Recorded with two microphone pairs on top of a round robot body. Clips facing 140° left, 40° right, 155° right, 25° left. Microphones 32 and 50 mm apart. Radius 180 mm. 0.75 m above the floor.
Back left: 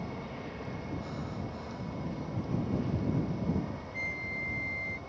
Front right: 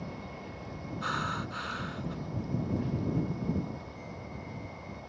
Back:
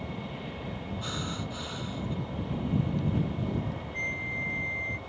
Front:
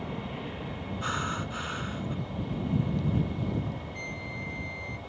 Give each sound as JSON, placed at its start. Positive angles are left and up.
{"t": 0.0, "sound": "an aircraft", "azimuth_deg": 85}
{"t": 1.0, "sound": "breathing", "azimuth_deg": -25}
{"t": 3.9, "sound": "a flute", "azimuth_deg": 155}